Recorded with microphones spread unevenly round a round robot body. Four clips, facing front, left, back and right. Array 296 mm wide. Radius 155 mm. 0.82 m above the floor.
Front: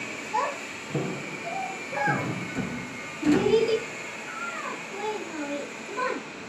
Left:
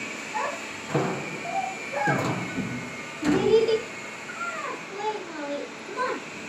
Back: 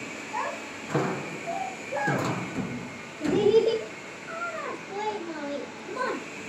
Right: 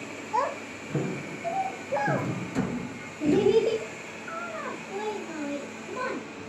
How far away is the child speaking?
About 1.8 m.